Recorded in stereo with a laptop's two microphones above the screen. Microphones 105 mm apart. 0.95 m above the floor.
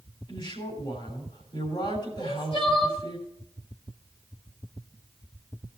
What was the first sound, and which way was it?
A woman speaking, 50° left (ahead or behind).